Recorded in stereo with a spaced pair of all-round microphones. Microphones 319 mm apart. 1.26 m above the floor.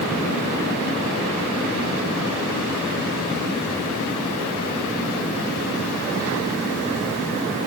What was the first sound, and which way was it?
Only background noise.